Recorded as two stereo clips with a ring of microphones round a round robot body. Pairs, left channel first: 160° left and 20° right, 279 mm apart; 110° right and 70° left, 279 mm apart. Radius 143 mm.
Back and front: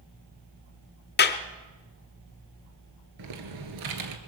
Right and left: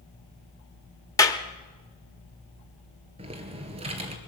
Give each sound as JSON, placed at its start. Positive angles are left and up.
{"t": 1.2, "sound": "a clap", "azimuth_deg": 175, "distance_m": 1.0}
{"t": 3.2, "sound": "typing on a keyboard", "azimuth_deg": -5, "distance_m": 1.8}